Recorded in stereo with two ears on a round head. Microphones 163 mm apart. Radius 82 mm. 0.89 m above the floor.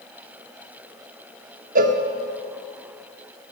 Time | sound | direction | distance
1.8 | a cowbell | 45° right (ahead or behind) | 0.9 m